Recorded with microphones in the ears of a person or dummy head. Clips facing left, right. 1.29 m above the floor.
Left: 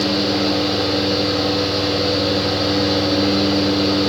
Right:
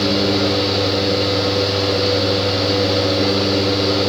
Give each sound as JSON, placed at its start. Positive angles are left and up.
{"t": 0.0, "sound": "a fan", "side_deg": -40, "distance_m": 3.5}